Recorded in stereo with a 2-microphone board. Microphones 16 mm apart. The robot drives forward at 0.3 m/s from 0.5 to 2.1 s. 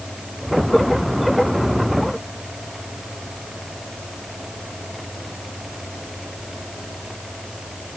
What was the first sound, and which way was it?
Only background noise.